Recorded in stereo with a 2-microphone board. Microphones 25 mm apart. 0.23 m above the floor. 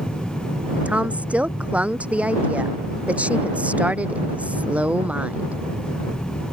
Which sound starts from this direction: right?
A woman speaking, at 0.8 s.